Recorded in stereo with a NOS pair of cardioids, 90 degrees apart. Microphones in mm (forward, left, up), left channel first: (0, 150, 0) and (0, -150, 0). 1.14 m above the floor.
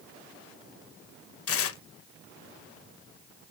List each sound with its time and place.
1.5 s tearing paper: 50° left, 0.7 m